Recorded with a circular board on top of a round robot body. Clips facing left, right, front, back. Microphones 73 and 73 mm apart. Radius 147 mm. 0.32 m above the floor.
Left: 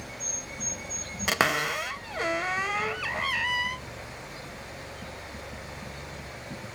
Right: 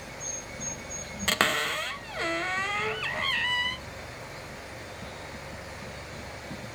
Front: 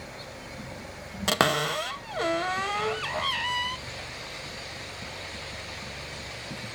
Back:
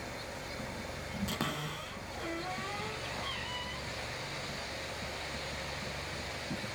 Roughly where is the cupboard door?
Ahead.